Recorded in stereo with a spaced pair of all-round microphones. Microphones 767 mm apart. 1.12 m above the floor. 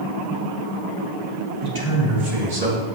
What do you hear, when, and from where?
1.6 s a man speaking: 35° right (ahead or behind), 3 m; by 2.8 s 60° right (ahead or behind), 2.5 m